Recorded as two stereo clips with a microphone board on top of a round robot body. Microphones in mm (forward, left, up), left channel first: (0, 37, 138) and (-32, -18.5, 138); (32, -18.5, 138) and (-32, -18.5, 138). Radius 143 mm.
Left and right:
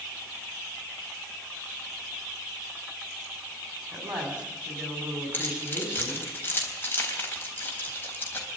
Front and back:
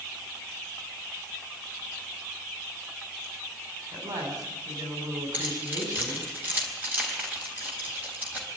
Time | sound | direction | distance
3.9 | a woman speaking | 165° left | 6.5 m
5.3 | keys jangling | 120° left | 3.5 m